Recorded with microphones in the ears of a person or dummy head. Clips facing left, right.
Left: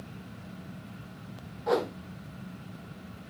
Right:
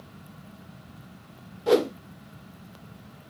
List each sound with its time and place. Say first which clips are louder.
1.7 s a whoosh: right 7 dB; 30° right (ahead or behind), 0.6 m